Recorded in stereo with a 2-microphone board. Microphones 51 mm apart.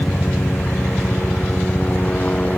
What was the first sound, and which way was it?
A helicopter, 40° left (ahead or behind).